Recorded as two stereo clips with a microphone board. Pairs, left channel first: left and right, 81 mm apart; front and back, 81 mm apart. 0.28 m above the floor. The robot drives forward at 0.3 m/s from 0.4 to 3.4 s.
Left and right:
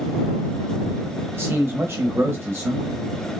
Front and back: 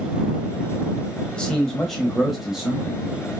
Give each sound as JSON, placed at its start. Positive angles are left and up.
{"t": 1.3, "sound": "a man speaking", "azimuth_deg": -70, "distance_m": 1.2}